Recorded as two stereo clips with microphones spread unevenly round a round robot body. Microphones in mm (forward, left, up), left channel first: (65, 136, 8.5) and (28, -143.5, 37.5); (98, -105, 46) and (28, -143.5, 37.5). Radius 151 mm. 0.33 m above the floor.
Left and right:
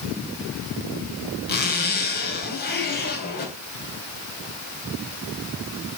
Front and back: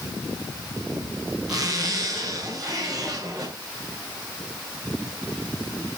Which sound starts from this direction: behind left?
A zipper, at 1.5 s.